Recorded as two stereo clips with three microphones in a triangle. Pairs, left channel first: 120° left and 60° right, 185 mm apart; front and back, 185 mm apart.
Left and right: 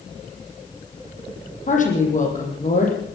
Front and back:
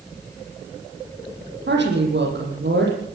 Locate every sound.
1.7 s a woman speaking: 165° left, 7.5 m